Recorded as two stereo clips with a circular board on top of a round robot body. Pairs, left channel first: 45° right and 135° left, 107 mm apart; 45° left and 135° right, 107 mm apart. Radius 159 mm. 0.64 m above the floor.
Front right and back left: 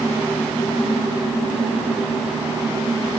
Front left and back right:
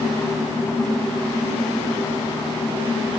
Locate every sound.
Only background noise.